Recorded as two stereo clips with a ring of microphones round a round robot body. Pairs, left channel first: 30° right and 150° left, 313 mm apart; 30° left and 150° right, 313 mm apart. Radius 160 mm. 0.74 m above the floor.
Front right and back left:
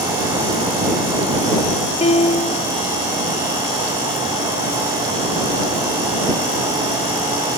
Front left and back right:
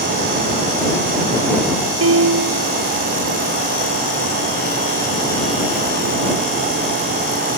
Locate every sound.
2.0 s a piano: 100° right